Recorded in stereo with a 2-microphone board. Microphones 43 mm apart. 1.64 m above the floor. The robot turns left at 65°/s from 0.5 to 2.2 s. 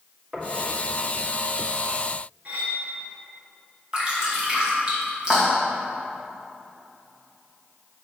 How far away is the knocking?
About 2 m.